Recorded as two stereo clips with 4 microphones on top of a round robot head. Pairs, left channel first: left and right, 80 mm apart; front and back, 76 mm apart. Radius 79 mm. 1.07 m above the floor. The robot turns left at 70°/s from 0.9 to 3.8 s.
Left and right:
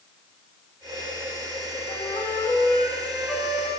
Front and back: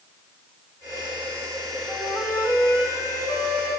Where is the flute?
100° left, 2.5 m; by 3.7 s 25° right, 2.5 m.